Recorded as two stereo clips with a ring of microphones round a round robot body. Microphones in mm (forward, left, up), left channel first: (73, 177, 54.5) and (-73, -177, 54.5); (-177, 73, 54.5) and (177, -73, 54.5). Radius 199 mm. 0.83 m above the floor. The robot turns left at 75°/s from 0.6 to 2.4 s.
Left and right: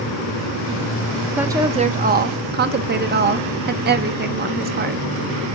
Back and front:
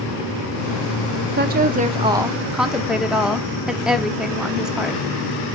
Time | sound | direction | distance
1.4 | a woman speaking | 30° right | 0.6 m